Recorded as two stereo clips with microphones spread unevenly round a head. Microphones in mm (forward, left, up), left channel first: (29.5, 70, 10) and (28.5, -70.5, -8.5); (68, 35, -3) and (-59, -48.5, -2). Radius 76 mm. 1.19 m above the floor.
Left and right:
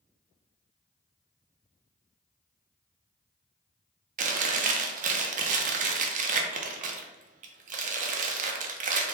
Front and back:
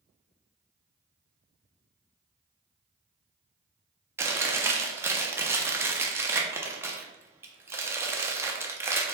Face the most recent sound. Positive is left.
turn(degrees=-75)